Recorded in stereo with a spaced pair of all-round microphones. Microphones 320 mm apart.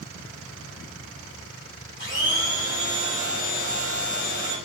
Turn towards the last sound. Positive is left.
turn(degrees=35)  # may be behind; listen again after turning